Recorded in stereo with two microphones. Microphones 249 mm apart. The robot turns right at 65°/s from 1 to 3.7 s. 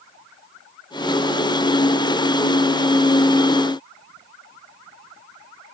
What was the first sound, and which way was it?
Only background noise.